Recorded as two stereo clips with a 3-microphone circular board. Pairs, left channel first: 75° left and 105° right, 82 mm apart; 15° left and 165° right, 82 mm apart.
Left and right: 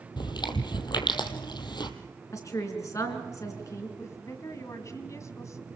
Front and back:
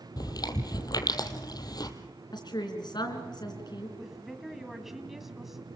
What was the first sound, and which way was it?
Chewing, 50° left.